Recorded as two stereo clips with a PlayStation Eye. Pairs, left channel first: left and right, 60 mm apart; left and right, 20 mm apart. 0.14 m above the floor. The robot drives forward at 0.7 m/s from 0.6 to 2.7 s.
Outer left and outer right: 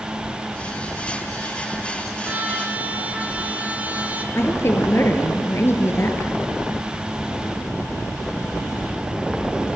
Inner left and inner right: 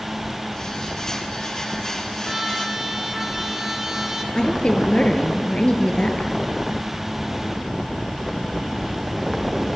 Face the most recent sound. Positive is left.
turn(degrees=45)  # may be behind; listen again after turning